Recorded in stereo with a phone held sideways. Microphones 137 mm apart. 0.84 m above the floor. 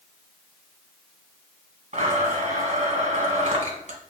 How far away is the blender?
About 1.7 m.